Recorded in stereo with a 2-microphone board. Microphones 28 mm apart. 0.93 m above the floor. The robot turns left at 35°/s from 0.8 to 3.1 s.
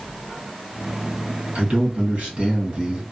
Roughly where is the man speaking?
Right.